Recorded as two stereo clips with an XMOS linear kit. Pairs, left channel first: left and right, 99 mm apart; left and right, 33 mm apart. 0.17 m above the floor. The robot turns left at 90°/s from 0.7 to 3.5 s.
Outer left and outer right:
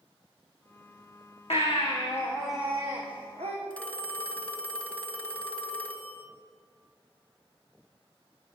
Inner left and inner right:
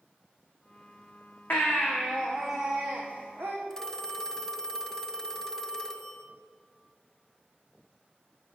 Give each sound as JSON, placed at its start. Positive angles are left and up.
{"t": 1.5, "sound": "a baby crying", "azimuth_deg": 90, "distance_m": 3.5}
{"t": 3.7, "sound": "a phone ringing", "side_deg": 10, "distance_m": 1.5}